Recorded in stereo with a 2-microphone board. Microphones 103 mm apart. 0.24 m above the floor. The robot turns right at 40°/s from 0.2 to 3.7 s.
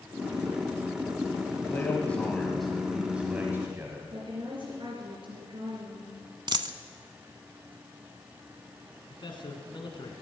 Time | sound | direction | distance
1.5 | a man speaking | 135° left | 1.9 m
4.1 | a woman speaking | 55° right (ahead or behind) | 3 m
6.5 | a dropped coin | 45° right (ahead or behind) | 0.7 m
9.1 | a man speaking | 50° left (ahead or behind) | 2 m